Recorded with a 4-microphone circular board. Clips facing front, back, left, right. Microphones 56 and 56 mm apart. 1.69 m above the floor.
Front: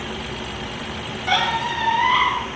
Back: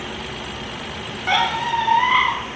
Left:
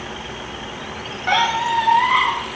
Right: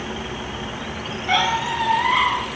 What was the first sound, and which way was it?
A squeak, 115° left.